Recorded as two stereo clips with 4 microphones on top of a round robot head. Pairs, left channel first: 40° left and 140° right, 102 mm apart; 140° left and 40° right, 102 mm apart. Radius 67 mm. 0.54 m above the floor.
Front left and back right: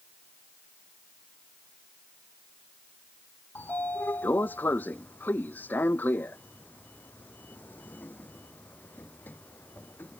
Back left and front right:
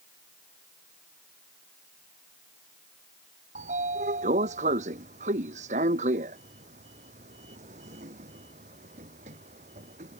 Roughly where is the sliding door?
Ahead right.